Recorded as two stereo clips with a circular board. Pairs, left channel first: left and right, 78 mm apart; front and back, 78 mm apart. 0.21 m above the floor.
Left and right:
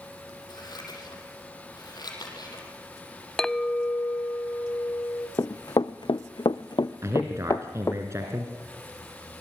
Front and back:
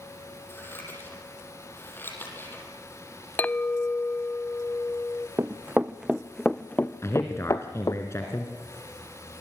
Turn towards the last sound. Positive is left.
turn(degrees=-45)